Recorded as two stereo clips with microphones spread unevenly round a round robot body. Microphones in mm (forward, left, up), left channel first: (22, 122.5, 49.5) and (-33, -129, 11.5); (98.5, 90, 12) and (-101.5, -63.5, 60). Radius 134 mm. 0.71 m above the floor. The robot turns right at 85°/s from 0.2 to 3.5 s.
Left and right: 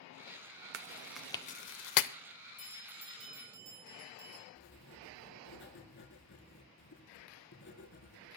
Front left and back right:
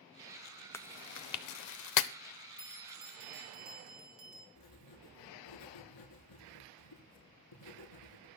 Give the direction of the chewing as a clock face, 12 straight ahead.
2 o'clock.